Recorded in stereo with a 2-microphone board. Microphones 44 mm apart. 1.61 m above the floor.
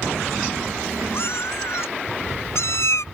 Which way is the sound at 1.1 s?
55° left (ahead or behind).